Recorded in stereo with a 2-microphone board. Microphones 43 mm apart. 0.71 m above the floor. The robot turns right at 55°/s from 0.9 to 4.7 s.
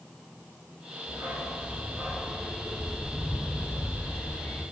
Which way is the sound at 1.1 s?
95° right.